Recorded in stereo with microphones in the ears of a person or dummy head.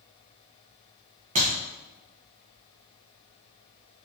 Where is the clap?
40° right (ahead or behind), 1.4 m.